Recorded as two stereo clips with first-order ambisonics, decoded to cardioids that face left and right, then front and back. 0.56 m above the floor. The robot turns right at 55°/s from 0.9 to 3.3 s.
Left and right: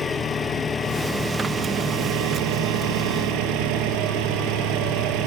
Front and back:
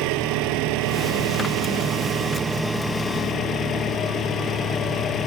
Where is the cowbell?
I don't hear a cowbell.